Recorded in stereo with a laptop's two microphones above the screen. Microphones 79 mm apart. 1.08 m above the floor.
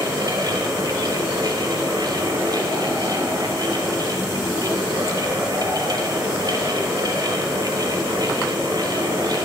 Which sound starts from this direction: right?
A fan, at 0.0 s.